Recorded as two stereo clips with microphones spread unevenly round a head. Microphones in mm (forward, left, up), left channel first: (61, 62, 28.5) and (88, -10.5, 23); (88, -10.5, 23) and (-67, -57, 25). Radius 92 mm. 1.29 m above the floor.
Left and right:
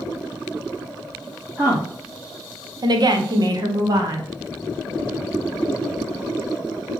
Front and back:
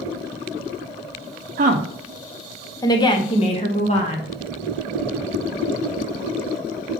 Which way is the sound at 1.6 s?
145° right.